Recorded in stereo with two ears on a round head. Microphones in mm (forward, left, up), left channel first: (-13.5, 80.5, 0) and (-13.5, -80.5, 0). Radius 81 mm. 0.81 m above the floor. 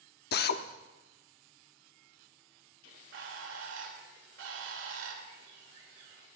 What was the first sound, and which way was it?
A drill, 55° left (ahead or behind).